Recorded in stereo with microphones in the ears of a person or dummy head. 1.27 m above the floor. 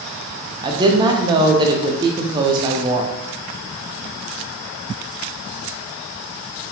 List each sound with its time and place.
0.6 s a woman speaking: 25° right (ahead or behind), 0.7 m